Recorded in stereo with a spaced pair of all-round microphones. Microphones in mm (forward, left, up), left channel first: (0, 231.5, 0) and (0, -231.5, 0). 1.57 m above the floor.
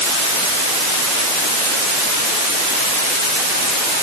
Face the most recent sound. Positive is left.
No sound to turn to.